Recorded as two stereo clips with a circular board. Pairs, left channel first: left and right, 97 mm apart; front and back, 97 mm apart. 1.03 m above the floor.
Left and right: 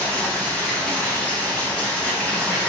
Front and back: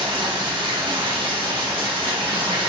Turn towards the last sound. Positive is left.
turn(degrees=165)